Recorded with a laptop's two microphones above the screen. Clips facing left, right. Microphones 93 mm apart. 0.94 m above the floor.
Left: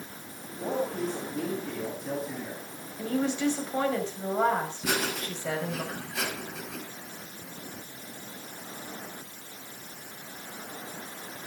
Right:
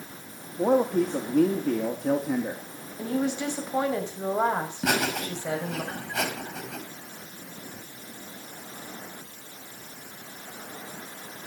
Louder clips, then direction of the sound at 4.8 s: Right 4 dB; 65° right (ahead or behind).